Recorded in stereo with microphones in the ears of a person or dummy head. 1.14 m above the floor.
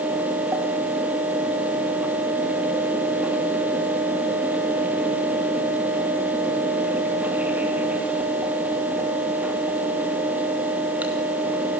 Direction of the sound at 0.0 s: 10° right (ahead or behind).